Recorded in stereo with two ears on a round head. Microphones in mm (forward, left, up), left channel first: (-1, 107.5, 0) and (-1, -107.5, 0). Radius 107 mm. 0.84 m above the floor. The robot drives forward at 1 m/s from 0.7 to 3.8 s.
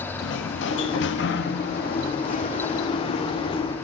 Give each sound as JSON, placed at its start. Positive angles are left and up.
{"t": 0.2, "sound": "a sliding door", "side_deg": 55, "distance_m": 1.6}